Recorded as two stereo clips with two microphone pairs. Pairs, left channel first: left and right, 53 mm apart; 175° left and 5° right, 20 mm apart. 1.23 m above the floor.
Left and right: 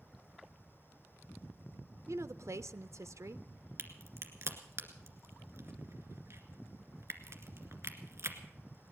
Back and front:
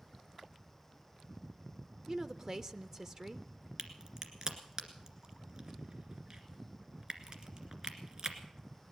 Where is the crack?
55° right, 2 m.